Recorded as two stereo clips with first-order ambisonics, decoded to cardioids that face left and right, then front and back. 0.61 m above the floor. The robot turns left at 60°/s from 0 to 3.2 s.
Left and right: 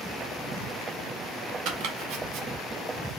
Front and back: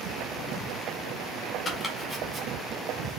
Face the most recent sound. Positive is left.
turn(degrees=-160)